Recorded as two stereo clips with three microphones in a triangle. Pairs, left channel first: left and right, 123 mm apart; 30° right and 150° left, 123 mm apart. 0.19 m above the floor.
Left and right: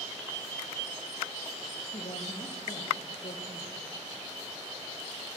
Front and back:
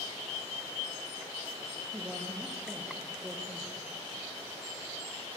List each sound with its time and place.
1.9 s a woman speaking: 75° left, 5 m